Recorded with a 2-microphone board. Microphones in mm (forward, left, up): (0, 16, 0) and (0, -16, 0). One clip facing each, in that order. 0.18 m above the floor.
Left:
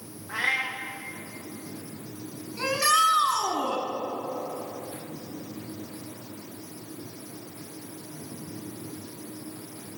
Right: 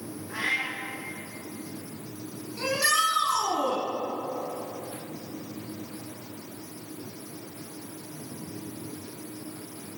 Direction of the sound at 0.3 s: 35° left (ahead or behind).